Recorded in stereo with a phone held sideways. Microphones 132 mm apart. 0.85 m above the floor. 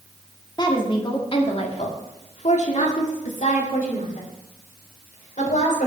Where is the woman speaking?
35° left (ahead or behind), 1.8 m; by 5.9 s 75° left (ahead or behind), 3.5 m.